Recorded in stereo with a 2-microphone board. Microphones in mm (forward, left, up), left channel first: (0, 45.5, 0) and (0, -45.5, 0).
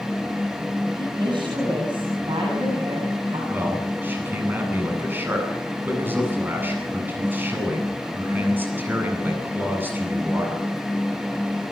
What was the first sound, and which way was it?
A woman speaking, 65° right (ahead or behind).